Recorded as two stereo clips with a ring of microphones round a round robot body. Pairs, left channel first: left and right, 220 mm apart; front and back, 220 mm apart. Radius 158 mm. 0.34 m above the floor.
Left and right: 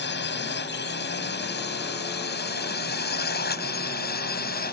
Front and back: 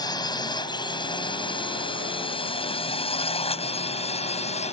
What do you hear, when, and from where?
0.0 s a drone: 70° left; by 4.7 s 55° left